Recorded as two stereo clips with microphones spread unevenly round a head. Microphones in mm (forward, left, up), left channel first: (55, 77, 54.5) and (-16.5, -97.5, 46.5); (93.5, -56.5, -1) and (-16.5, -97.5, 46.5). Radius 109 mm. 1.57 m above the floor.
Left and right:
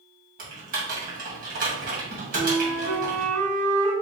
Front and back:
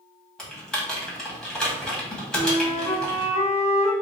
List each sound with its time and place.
0.4 s typing on a keyboard: 80° right, 2 m
2.3 s a flute: 15° right, 2 m